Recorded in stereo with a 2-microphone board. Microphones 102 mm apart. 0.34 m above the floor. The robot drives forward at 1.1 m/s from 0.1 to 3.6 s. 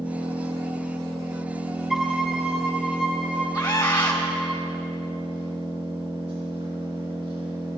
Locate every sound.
0.0 s an engine running: 85° right, 6.5 m; by 7.8 s 60° right (ahead or behind), 7.5 m
1.9 s a violin: centre (ahead or behind), 0.6 m
3.5 s a scream: 40° left (ahead or behind), 2 m; by 4.2 s 45° left (ahead or behind), 2 m